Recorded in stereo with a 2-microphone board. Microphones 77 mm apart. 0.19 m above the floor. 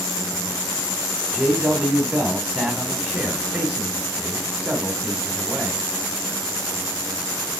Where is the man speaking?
15° right (ahead or behind), 1.4 m.